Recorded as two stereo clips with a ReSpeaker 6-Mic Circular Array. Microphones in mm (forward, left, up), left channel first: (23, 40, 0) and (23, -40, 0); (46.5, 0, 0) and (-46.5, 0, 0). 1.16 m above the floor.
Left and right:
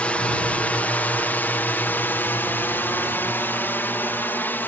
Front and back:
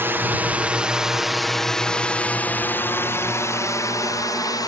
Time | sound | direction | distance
0.0 | a drone | 145° left | ?